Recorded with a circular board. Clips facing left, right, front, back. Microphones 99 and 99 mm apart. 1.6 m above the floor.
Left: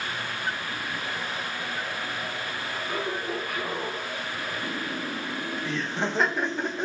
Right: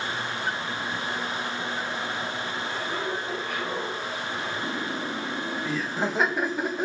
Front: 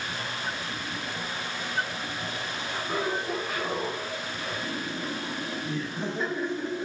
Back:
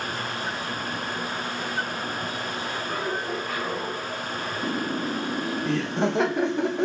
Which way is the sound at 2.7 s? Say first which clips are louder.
Left 1 dB, front 2 dB; 70° left.